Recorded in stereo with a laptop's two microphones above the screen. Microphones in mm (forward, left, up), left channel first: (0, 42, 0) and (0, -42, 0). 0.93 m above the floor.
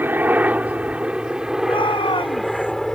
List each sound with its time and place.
0.0 s a helicopter: 25° right (ahead or behind); by 3.0 s 5° left (ahead or behind)
1.6 s a shout: 85° left